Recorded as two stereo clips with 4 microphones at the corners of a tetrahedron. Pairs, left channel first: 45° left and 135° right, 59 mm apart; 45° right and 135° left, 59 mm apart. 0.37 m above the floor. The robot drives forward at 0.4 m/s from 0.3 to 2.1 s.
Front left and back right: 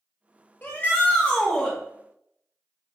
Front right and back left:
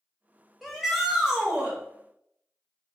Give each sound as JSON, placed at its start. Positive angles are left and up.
{"t": 0.6, "sound": "a shout", "azimuth_deg": 45, "distance_m": 0.9}